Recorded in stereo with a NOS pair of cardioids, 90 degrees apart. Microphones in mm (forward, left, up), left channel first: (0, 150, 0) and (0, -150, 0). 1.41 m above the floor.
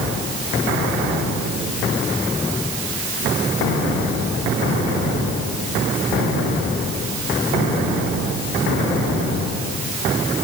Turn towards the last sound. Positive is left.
No sound to turn to.